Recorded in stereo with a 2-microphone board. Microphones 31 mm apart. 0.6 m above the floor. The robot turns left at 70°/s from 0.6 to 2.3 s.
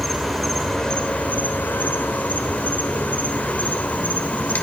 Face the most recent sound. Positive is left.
turn(degrees=55)